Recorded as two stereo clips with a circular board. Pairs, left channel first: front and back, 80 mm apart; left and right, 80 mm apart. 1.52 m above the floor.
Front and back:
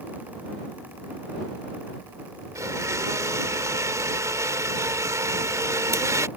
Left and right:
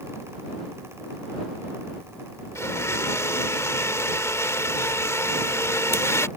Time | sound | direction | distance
2.5 | a blender | 140° left | ?